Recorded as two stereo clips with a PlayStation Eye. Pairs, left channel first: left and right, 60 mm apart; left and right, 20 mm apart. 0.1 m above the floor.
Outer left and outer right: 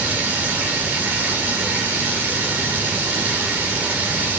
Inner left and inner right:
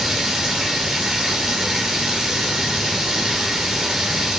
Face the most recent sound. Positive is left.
turn(degrees=-30)  # may be behind; listen again after turning